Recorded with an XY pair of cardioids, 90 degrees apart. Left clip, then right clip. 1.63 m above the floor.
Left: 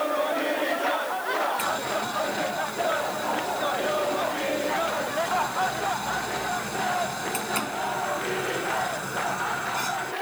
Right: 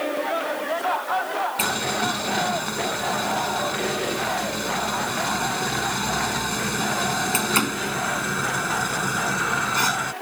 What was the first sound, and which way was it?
Boiling, 65° right.